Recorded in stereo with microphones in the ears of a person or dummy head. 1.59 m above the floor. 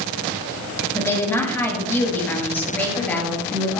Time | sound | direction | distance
0.9 | a woman speaking | 10° left (ahead or behind) | 6 m